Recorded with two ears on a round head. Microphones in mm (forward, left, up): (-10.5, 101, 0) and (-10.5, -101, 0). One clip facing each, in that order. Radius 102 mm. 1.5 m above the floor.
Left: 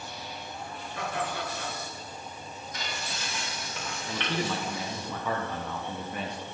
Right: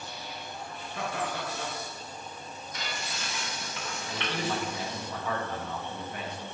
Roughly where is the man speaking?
Left.